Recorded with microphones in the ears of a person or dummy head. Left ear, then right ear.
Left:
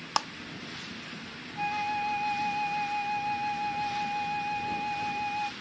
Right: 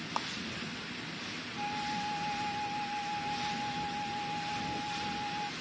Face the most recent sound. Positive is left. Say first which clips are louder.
# left 6 dB
turn(degrees=55)  # may be behind; listen again after turning